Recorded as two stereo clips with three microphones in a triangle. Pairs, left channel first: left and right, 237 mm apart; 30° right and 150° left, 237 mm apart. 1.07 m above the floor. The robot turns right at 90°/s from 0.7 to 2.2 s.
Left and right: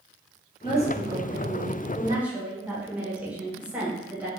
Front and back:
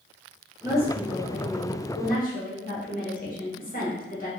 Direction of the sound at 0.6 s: 145° right.